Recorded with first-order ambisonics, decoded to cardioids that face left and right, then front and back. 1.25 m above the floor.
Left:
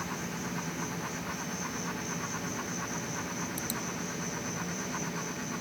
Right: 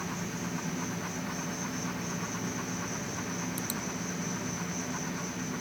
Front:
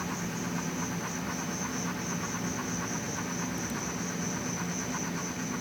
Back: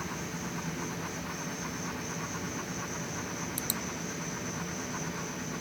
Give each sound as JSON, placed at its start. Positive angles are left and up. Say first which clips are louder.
{"t": 0.0, "sound": "an insect", "louder": "even, front 2 dB", "azimuth_deg": -15, "distance_m": 0.9}